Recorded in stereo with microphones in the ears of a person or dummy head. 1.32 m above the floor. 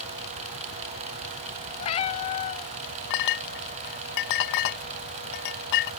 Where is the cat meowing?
35° left (ahead or behind).